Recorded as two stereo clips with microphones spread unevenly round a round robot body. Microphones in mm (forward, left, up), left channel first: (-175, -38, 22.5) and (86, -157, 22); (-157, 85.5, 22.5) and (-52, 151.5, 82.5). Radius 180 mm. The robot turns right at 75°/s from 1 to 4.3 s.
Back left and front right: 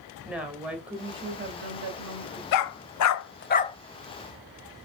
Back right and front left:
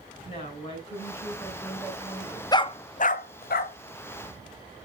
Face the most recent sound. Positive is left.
turn(degrees=-85)